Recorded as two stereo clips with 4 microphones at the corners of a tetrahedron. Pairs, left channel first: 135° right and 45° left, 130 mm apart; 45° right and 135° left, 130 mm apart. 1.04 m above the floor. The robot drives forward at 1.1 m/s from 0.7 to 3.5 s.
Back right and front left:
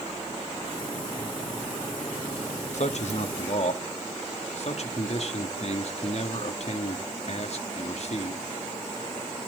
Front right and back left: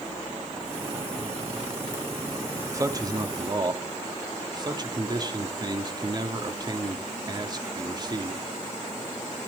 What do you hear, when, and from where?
2.7 s a man speaking: 160° right, 1.3 m; by 8.4 s 170° right, 2 m